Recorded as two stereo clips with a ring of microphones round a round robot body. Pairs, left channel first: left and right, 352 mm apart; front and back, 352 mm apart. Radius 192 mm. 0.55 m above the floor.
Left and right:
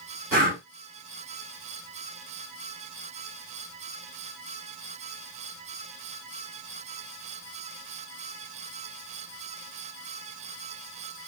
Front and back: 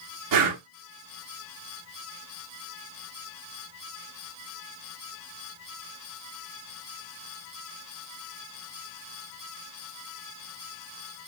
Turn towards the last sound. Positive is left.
turn(degrees=-155)